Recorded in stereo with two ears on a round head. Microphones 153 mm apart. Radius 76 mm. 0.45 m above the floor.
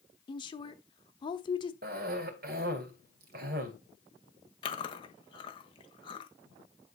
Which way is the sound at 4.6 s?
30° left (ahead or behind).